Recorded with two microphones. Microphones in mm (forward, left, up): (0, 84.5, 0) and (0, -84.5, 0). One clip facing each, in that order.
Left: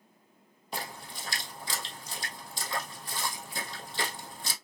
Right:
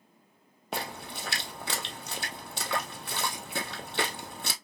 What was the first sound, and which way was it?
A splash, 70° right (ahead or behind).